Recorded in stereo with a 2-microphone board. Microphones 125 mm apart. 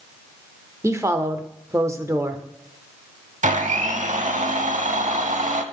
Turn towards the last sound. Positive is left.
turn(degrees=-85)